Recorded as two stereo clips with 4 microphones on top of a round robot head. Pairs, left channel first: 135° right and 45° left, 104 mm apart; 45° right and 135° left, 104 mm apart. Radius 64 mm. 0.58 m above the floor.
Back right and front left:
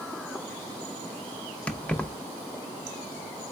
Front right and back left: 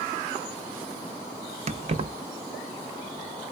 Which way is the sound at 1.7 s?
150° left.